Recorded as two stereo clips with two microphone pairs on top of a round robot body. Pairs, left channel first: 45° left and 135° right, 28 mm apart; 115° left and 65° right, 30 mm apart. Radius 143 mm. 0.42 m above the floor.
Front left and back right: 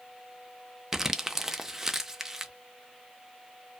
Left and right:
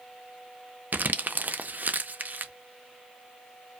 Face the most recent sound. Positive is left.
turn(degrees=-65)